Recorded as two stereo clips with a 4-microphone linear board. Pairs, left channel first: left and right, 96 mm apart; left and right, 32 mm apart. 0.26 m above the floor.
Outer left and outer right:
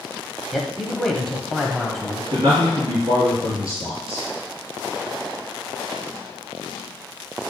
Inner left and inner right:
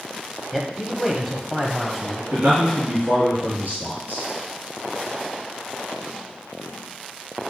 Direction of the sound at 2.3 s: 55° right (ahead or behind).